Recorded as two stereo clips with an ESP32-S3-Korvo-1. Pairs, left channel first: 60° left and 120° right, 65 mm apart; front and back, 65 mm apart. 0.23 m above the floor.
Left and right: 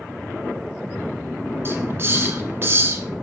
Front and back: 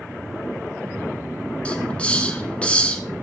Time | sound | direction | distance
1.6 | a hiss | 70° right | 1.0 m